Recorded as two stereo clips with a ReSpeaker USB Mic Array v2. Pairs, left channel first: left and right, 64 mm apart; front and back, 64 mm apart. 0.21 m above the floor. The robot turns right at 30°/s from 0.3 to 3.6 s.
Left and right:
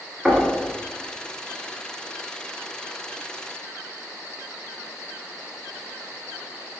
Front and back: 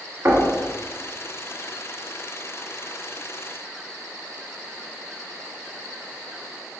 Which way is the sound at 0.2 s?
Straight behind.